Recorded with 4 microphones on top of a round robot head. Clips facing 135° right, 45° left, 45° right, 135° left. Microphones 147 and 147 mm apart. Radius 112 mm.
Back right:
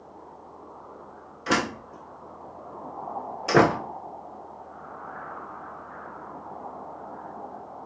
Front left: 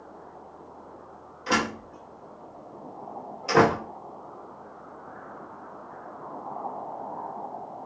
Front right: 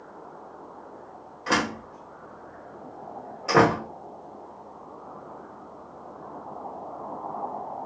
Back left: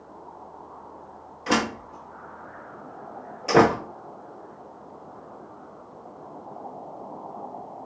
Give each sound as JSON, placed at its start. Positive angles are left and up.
{"t": 1.5, "sound": "a door slam", "azimuth_deg": -160, "distance_m": 0.5}